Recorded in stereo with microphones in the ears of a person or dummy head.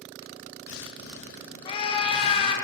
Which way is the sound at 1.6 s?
30° left (ahead or behind).